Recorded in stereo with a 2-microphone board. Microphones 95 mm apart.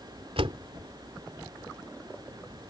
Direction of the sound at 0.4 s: 85° right.